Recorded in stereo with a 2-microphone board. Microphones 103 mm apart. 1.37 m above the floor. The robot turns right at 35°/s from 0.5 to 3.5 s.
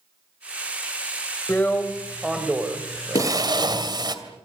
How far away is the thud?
About 9.5 m.